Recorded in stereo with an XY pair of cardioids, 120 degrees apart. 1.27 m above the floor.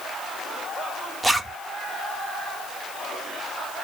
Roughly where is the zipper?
Ahead.